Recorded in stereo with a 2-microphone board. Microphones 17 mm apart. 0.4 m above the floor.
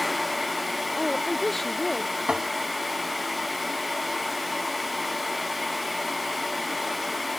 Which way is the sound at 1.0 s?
5° left (ahead or behind).